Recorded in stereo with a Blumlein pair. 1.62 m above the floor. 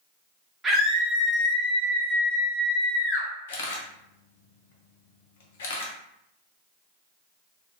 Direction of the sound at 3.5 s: 55° left.